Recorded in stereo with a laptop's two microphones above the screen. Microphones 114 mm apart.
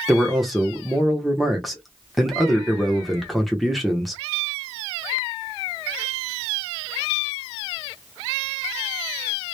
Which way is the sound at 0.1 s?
Centre (ahead or behind).